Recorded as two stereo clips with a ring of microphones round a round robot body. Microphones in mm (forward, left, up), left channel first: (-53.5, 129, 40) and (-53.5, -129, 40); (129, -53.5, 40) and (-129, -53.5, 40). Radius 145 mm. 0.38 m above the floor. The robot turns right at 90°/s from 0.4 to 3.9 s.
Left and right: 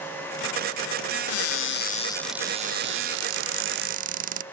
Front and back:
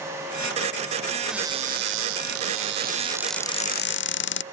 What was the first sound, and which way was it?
A cupboard door, 90° left.